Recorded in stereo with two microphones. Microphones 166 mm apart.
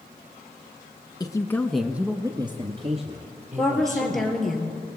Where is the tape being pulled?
No tape being pulled in this recording.